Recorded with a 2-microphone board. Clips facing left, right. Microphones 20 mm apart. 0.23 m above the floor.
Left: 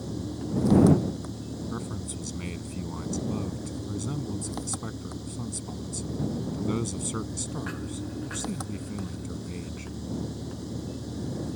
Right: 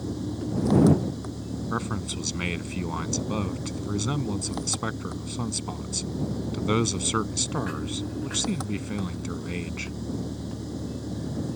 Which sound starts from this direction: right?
A man speaking, at 1.7 s.